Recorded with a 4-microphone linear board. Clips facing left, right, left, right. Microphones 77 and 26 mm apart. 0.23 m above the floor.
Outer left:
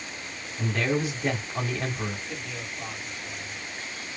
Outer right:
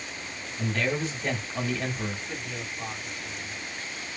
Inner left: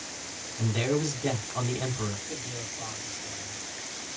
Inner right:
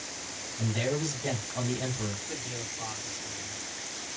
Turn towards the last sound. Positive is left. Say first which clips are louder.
# even, even
turn(degrees=-20)  # may be behind; listen again after turning